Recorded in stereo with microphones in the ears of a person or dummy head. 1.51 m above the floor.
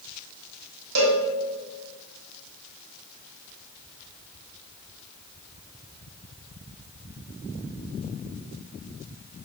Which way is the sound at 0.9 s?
65° right (ahead or behind).